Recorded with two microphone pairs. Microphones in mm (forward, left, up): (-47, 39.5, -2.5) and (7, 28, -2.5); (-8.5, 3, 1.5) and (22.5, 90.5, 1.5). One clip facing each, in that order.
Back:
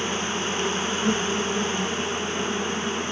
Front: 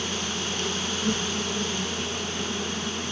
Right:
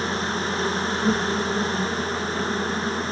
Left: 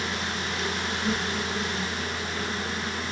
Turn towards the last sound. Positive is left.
turn(degrees=-150)